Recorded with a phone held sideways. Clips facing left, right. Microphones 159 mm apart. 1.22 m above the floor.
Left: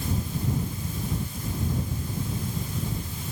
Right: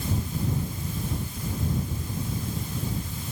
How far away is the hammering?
No hammering in this recording.